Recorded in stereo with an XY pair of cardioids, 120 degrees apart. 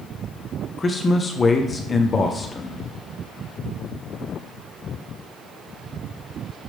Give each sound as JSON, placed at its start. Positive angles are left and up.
{"t": 0.8, "sound": "a man speaking", "azimuth_deg": 30, "distance_m": 0.8}